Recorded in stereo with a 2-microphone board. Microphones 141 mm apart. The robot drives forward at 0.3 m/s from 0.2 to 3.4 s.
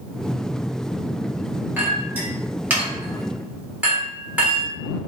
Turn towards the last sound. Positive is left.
turn(degrees=-10)  # may be behind; listen again after turning